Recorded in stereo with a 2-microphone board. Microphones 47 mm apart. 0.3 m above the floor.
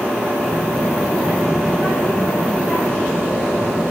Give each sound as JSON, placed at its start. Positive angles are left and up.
{"t": 0.4, "sound": "a child speaking", "side_deg": -20, "distance_m": 4.0}